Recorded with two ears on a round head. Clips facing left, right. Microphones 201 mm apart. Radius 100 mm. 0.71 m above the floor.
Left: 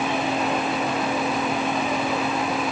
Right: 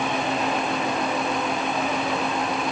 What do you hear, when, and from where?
Only background noise.